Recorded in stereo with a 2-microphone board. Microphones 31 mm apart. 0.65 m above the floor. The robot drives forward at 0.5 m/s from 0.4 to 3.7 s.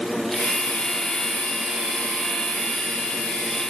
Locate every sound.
Only background noise.